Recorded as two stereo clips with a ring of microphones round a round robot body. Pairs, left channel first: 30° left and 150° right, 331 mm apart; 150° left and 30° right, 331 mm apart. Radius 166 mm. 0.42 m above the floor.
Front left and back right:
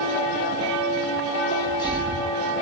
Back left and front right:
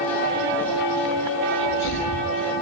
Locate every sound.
1.5 s a sneeze: 105° left, 9.5 m